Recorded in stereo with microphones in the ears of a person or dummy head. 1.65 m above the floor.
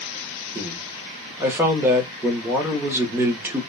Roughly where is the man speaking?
Centre.